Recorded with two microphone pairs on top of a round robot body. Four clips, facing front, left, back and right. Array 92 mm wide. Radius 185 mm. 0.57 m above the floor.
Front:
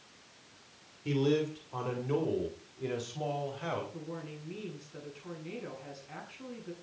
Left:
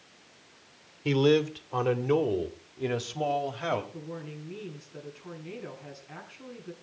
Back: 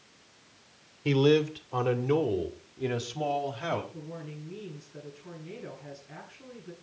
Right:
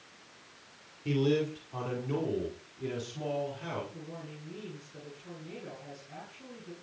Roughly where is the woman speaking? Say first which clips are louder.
Left 4 dB, back 1 dB; ahead left.